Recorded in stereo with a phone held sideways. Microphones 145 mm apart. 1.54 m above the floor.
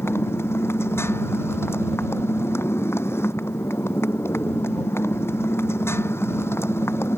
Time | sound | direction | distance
0.0 | a motorcycle | 15° left (ahead or behind) | ?